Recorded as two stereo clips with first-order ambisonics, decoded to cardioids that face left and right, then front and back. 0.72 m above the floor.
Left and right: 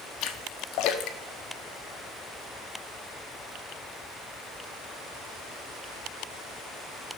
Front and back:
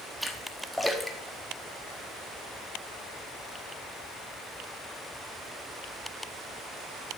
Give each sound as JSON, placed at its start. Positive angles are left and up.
{"t": 0.2, "sound": "a splash", "azimuth_deg": 90, "distance_m": 1.2}